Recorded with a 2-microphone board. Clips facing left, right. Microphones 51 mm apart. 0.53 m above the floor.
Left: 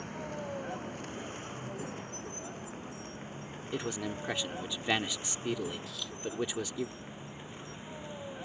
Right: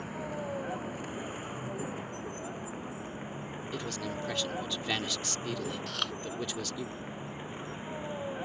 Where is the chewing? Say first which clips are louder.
Right 7 dB; 65° right (ahead or behind).